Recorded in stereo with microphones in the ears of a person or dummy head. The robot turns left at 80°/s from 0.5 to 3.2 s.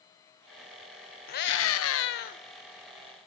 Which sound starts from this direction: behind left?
A scream, at 1.3 s.